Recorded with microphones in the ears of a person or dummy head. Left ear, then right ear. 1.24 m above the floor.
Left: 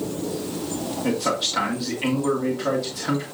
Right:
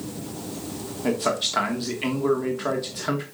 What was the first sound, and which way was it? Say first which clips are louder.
A man speaking: even; 25° right (ahead or behind).